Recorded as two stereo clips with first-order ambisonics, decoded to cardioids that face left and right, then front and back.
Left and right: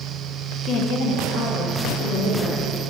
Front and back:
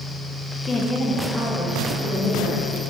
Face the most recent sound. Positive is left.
turn(degrees=90)